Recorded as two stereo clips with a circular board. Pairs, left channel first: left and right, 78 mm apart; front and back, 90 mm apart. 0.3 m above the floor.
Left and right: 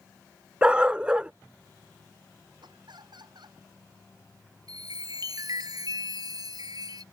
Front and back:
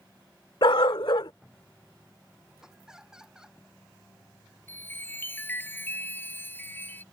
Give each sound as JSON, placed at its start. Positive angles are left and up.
{"t": 0.6, "sound": "a dog barking", "azimuth_deg": -15}
{"t": 2.6, "sound": "laughter", "azimuth_deg": -95}
{"t": 4.7, "sound": "a chime", "azimuth_deg": -65}